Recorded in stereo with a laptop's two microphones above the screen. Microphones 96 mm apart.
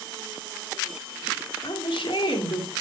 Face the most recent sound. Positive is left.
turn(degrees=65)  # may be behind; listen again after turning